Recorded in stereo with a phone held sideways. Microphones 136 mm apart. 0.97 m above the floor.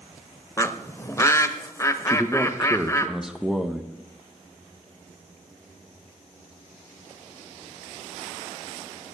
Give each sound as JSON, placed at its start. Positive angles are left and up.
{"t": 0.6, "sound": "a bird", "side_deg": 20, "distance_m": 0.7}
{"t": 2.1, "sound": "a man speaking", "side_deg": -5, "distance_m": 1.0}